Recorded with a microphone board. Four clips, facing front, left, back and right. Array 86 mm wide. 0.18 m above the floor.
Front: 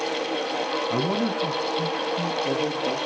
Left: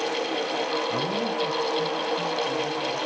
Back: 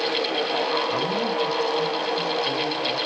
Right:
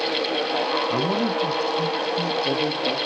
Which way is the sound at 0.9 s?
45° right.